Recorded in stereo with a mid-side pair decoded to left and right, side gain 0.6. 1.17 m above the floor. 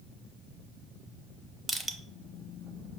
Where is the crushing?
15° right, 0.6 m.